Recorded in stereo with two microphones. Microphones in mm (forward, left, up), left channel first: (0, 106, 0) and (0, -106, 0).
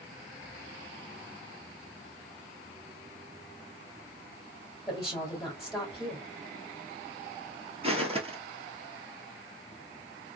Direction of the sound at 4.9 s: Centre (ahead or behind).